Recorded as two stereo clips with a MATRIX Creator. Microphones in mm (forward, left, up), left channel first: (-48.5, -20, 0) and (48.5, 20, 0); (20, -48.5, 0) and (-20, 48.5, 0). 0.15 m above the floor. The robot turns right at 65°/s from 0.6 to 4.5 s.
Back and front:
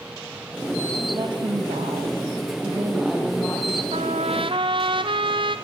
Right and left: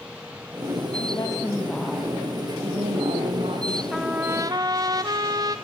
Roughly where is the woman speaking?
Ahead right.